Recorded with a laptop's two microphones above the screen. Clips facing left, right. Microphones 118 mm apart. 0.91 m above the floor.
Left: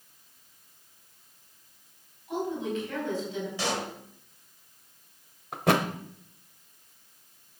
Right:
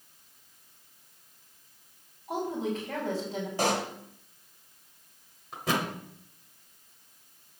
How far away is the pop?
About 1.5 m.